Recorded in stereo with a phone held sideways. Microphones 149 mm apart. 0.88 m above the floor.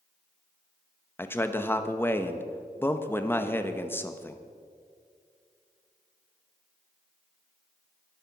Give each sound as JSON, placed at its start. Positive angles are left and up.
{"t": 1.2, "sound": "a man speaking", "side_deg": 15, "distance_m": 0.9}